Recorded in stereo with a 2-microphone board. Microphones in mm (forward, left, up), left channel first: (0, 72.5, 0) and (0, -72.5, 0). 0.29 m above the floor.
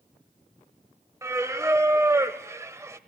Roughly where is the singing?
Centre.